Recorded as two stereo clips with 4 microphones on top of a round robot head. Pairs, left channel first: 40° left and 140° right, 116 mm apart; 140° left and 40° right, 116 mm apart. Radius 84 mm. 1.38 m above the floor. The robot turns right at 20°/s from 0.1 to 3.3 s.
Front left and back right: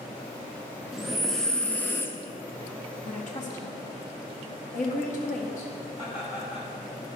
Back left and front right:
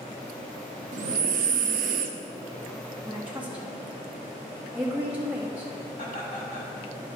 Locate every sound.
0.9 s breathing: 55° right, 0.6 m; by 2.2 s 30° right, 0.6 m
3.0 s a woman speaking: 35° left, 1.9 m; by 5.7 s 40° left, 1.9 m
6.0 s laughter: 90° left, 3.5 m